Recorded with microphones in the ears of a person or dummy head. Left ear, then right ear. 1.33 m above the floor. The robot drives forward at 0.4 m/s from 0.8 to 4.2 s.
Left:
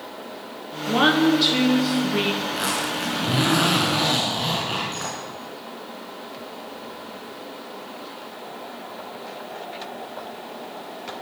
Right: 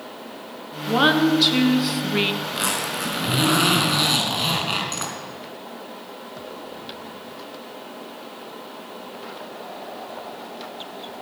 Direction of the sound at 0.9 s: 10° right (ahead or behind).